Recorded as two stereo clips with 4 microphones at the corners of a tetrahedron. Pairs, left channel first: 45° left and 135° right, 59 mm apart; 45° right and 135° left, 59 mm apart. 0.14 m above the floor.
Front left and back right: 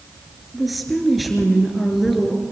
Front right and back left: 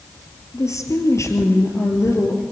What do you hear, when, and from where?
0.5 s a woman speaking: 45° right, 2.5 m